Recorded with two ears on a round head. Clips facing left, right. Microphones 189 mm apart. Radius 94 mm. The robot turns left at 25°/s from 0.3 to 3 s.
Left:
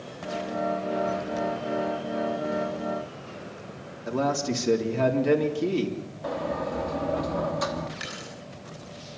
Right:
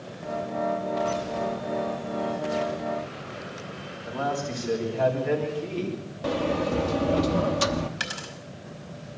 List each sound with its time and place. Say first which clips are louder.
4.1 s a man speaking: left 4 dB; 55° left (ahead or behind), 3.5 m
6.2 s a sliding door: right 4 dB; 40° right (ahead or behind), 1.1 m
8.0 s a dropped coin: right 1 dB; 80° right, 5 m